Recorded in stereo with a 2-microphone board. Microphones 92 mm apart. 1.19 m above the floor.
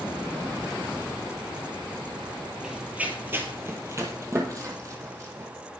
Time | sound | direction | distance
2.6 | running footsteps | 10° right (ahead or behind) | 1.4 m